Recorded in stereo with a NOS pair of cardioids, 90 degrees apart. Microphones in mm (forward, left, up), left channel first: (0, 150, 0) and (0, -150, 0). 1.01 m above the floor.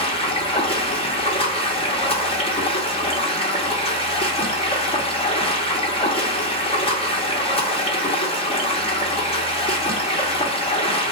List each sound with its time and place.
0.0 s running water: 20° left, 0.9 m